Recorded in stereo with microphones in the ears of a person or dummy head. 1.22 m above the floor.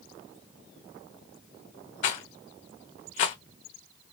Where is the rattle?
40° left (ahead or behind), 1.1 m.